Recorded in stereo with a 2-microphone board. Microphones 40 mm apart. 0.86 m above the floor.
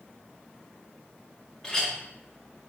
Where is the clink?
15° left (ahead or behind), 0.7 m.